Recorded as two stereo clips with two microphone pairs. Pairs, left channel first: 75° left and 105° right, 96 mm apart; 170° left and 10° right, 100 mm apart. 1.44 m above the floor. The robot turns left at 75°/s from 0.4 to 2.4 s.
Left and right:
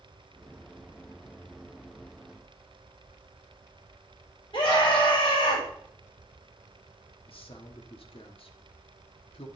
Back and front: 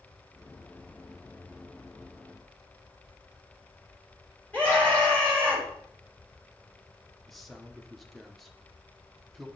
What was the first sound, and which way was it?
A scream, 100° left.